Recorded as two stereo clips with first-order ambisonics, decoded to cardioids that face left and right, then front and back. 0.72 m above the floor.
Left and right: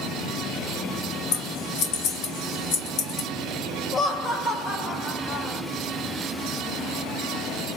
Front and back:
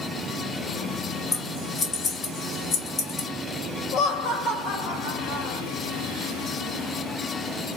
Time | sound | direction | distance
1.3 | scissors | 65° left | 2 m
3.9 | laughter | 35° left | 1.8 m